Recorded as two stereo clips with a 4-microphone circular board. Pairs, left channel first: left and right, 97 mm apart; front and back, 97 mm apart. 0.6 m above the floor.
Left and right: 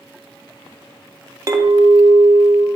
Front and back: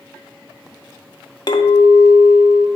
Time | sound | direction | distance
1.5 | a clink | 40° right | 0.8 m